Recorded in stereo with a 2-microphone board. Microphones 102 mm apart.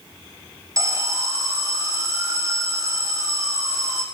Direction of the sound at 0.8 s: 35° right (ahead or behind).